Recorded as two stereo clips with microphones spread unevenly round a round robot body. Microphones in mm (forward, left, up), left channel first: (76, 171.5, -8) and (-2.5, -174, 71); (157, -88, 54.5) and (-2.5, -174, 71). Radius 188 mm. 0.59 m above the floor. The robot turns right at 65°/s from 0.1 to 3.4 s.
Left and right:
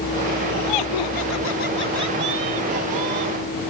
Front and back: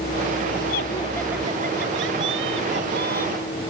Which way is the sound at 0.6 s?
75° left.